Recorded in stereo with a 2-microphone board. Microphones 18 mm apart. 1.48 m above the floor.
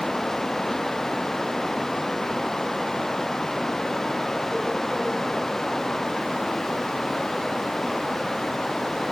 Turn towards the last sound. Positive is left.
No sound to turn to.